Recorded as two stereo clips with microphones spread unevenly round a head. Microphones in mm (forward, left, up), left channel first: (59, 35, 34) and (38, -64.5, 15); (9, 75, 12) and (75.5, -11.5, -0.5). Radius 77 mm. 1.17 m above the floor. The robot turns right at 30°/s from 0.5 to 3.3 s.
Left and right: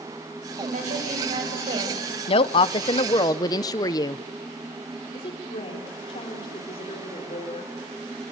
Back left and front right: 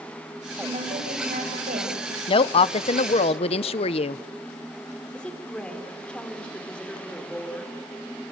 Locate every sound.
0.6 s a woman speaking: 110° right, 6.5 m; by 2.2 s 60° right, 6.5 m
2.3 s a woman speaking: 105° left, 0.6 m; by 4.2 s 135° left, 0.6 m
5.1 s a woman speaking: 45° left, 4 m